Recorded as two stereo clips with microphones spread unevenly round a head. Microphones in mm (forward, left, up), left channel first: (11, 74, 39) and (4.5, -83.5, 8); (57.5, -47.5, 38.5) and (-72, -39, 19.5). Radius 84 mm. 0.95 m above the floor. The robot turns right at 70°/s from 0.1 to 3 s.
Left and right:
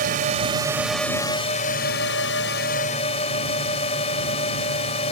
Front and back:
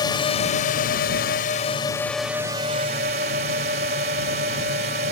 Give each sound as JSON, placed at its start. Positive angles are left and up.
{"t": 0.0, "sound": "a drone", "azimuth_deg": -60}